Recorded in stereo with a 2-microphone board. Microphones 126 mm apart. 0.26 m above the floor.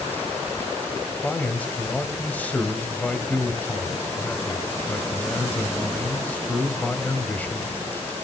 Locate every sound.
1.2 s a man speaking: 10° left (ahead or behind), 1.7 m